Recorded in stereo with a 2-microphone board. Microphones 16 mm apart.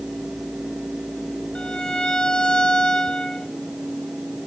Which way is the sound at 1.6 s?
55° left (ahead or behind).